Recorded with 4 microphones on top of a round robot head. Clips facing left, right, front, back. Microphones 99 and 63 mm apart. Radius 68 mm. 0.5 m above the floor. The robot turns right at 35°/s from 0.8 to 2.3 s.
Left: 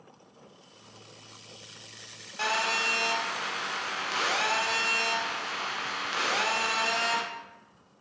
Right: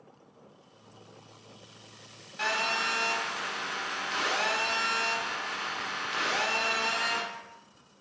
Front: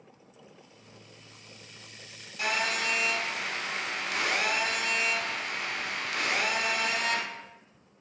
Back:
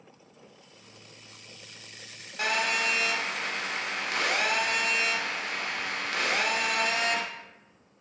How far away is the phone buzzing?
About 0.6 m.